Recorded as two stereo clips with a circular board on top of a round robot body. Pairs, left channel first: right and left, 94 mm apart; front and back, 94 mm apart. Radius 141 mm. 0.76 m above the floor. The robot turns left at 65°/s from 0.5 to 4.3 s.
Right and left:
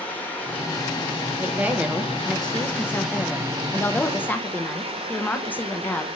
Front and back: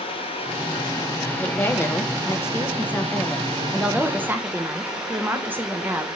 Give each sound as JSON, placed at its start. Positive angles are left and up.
{"t": 0.0, "sound": "running water", "azimuth_deg": -15, "distance_m": 2.0}
{"t": 1.4, "sound": "a woman speaking", "azimuth_deg": 50, "distance_m": 1.0}